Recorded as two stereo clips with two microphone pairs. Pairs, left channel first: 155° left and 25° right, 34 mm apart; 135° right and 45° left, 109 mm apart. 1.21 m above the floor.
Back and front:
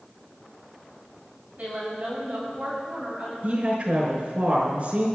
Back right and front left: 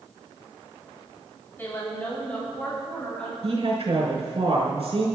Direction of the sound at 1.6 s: 65° right.